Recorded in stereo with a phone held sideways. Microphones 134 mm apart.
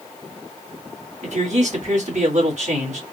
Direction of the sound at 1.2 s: 60° right (ahead or behind).